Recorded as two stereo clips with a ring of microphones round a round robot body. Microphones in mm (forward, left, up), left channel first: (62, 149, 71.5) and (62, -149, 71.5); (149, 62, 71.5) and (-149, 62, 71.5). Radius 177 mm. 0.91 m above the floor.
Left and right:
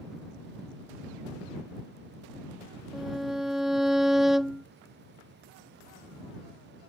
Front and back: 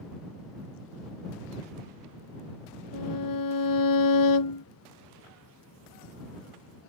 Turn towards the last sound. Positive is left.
turn(degrees=0)